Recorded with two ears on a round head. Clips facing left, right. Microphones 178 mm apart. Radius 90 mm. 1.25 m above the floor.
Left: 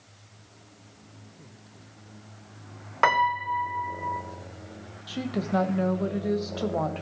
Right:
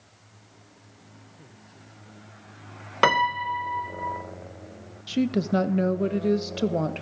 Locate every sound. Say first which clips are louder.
3.0 s a piano: right 2 dB; 40° right (ahead or behind), 0.6 m
5.1 s a woman speaking: right 5 dB; 30° right (ahead or behind), 0.7 m